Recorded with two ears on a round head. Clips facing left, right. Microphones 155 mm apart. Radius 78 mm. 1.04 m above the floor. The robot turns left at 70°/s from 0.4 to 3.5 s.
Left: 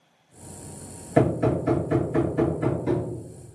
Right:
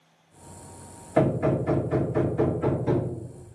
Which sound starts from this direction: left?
Hammering, at 1.2 s.